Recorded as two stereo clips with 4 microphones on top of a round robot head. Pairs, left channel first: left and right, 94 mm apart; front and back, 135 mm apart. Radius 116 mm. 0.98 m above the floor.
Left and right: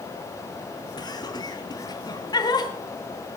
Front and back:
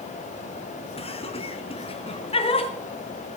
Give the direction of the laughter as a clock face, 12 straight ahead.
10 o'clock.